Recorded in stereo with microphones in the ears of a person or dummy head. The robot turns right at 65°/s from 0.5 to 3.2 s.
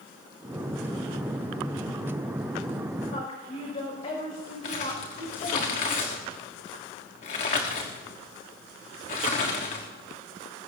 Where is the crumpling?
40° left (ahead or behind), 1.4 m.